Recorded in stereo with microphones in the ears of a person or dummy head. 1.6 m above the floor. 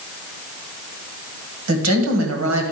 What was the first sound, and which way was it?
A woman speaking, 70° right (ahead or behind).